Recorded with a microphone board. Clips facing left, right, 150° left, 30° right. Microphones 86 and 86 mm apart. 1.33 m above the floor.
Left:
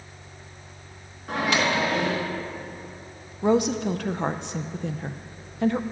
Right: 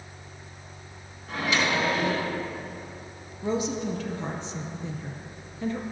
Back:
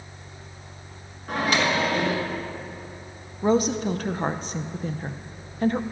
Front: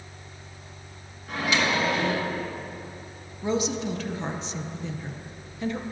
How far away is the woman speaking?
About 0.5 m.